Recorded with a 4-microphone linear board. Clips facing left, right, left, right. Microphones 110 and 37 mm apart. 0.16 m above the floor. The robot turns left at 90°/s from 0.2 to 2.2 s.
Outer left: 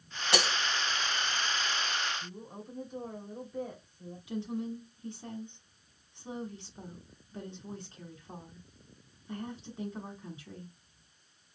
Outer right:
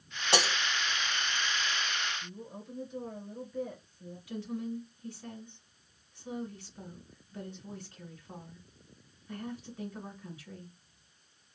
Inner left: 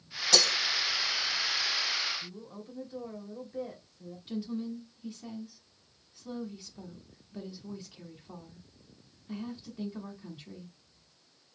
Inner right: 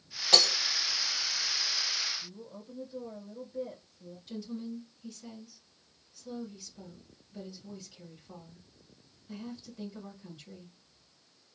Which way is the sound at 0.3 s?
30° right (ahead or behind).